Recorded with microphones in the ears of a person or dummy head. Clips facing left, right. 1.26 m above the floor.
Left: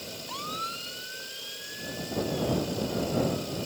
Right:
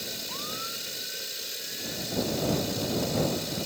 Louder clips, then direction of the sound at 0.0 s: Even; 25° right (ahead or behind).